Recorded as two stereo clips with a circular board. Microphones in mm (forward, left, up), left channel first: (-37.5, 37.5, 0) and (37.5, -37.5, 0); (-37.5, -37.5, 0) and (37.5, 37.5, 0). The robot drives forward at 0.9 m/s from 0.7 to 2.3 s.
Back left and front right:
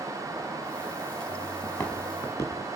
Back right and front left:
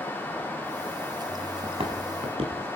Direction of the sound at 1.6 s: 75° left.